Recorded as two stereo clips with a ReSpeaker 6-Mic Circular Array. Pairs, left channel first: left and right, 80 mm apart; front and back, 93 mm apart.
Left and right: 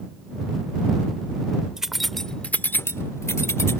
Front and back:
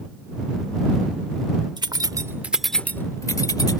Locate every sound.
1.8 s keys jangling: 170° right; by 3.8 s 35° left